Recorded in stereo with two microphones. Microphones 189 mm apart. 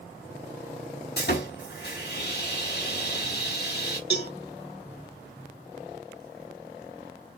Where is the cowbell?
65° left (ahead or behind), 1.0 m.